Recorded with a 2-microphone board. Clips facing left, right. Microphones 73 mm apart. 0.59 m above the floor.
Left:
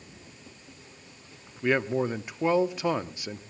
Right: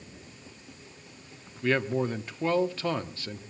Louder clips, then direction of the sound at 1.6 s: Left 1 dB; 15° left (ahead or behind).